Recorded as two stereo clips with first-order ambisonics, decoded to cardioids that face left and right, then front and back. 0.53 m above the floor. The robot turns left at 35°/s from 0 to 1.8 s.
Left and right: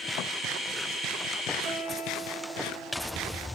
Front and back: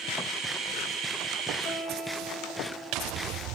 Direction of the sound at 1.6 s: 30° right.